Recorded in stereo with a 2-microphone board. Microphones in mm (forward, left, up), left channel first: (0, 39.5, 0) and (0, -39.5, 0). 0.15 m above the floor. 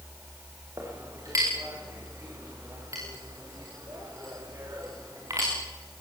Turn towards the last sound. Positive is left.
turn(degrees=-45)  # may be behind; listen again after turning